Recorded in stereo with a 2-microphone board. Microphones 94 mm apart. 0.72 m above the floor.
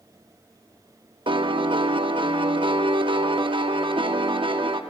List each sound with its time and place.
1.3 s a piano: 65° right (ahead or behind), 0.9 m